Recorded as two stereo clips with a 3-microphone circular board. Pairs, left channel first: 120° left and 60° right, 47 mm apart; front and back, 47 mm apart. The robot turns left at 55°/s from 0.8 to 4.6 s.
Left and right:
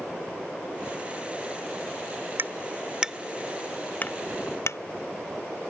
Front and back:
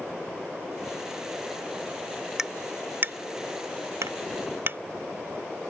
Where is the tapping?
100° right; by 4.8 s 140° left.